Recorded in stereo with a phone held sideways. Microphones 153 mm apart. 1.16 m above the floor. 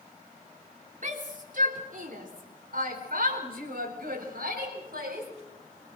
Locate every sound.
1.0 s a shout: 55° right (ahead or behind), 3.5 m; by 5.3 s 75° right (ahead or behind), 6 m